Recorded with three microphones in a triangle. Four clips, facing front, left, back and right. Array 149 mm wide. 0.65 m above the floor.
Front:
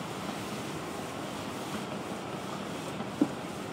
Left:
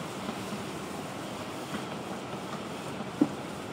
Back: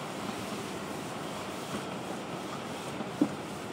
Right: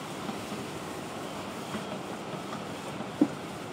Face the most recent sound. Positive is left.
No sound to turn to.